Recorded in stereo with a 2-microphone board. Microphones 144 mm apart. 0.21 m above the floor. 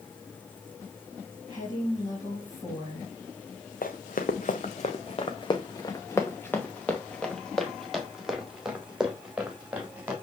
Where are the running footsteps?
80° left, 1.1 m; by 10.1 s 10° right (ahead or behind), 3.5 m.